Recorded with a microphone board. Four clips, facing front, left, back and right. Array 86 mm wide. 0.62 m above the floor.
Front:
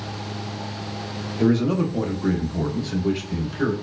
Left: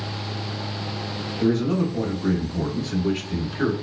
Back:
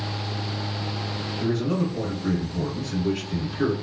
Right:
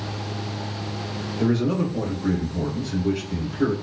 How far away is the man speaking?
About 1.0 m.